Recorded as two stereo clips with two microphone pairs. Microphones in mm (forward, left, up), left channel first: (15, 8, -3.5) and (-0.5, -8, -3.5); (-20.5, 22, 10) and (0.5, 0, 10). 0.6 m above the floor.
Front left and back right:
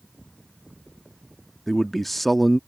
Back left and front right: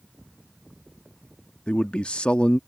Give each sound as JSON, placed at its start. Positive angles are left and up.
{"t": 1.7, "sound": "a man speaking", "azimuth_deg": 120}